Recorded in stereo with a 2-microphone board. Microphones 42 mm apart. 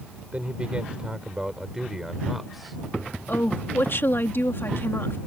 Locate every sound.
0.3 s a man speaking: 30° right (ahead or behind); by 2.8 s centre (ahead or behind)
3.3 s a woman speaking: 60° left (ahead or behind)